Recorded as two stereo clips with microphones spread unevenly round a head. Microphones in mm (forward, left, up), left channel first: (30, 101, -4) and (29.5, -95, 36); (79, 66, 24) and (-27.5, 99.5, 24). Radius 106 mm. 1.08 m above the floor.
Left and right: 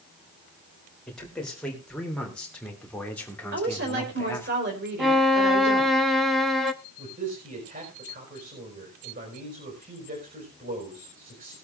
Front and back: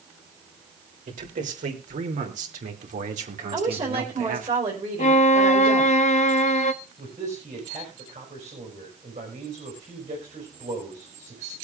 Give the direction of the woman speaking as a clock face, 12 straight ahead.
5 o'clock.